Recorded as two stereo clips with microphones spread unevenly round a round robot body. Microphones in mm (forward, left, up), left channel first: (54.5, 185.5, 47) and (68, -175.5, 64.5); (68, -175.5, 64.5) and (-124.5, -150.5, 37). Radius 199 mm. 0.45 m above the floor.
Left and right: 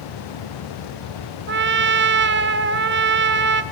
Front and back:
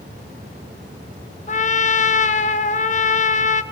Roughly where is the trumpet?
Ahead right.